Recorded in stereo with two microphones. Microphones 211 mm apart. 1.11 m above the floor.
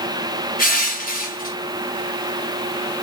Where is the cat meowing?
I don't hear a cat meowing.